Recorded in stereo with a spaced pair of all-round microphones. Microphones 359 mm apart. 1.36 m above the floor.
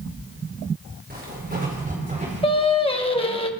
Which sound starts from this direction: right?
Footsteps, at 1.1 s.